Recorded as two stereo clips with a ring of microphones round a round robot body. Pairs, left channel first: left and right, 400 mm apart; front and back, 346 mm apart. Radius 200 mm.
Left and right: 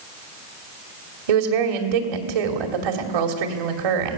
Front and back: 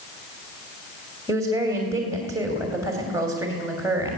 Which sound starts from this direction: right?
A woman speaking, at 1.3 s.